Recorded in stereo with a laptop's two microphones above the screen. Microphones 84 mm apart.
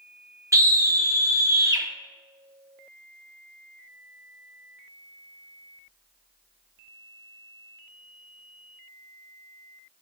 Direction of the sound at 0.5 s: 40° right (ahead or behind).